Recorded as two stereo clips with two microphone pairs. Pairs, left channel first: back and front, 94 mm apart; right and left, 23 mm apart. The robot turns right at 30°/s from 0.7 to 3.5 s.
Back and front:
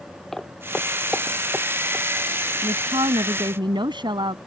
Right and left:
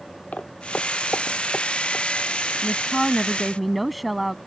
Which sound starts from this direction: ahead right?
A woman speaking, at 2.6 s.